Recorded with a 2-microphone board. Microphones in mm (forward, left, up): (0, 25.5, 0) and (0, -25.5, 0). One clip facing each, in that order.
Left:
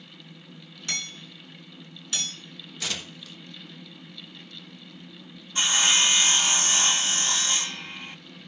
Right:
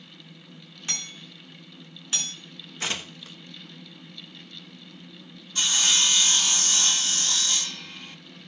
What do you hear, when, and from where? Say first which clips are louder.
0.9 s hammering: left 3 dB; 30° right (ahead or behind), 7.5 m
2.8 s tearing paper: right 3 dB; 30° right (ahead or behind), 1.2 m
5.5 s sawing: left 2 dB; 25° left (ahead or behind), 0.5 m